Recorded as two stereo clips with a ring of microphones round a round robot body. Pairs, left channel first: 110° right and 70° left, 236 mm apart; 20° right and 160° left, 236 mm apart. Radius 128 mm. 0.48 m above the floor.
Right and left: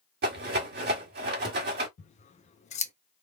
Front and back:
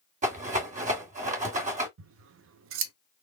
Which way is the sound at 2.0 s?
175° right.